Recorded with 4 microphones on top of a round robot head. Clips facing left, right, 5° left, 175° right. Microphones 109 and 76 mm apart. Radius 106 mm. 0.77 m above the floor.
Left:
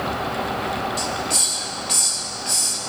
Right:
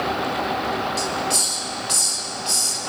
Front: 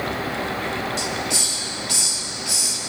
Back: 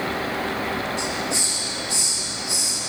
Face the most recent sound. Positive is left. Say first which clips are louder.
# right 2 dB, even
turn(degrees=-30)